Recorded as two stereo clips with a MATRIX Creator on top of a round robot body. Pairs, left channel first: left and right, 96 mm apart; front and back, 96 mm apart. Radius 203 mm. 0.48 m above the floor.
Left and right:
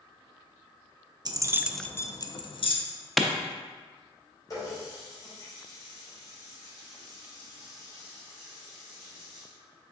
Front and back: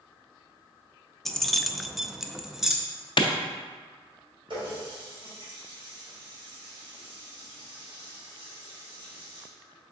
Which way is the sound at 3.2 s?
Straight ahead.